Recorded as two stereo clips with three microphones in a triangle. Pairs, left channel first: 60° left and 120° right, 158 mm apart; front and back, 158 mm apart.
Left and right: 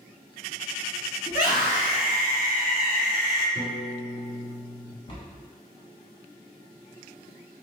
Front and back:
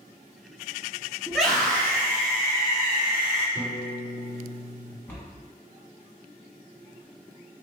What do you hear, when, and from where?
1.3 s a scream: 100° left, 1.4 m; by 3.5 s 50° left, 2 m
3.5 s a piano: 150° left, 1.6 m
5.1 s a cupboard door: 65° left, 1.2 m